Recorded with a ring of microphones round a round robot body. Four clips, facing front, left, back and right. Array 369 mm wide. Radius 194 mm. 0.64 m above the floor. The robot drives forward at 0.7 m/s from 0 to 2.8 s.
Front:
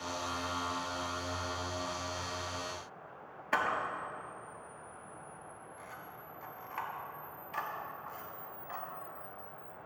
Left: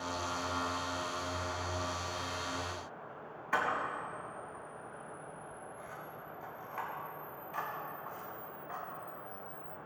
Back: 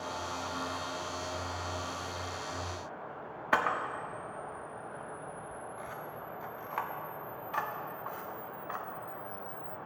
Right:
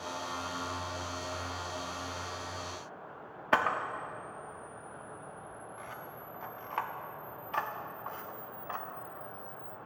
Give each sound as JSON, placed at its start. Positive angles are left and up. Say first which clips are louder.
{"t": 3.5, "sound": "a camera shutter", "louder": "right 4 dB, back 2 dB", "azimuth_deg": -115, "distance_m": 1.0}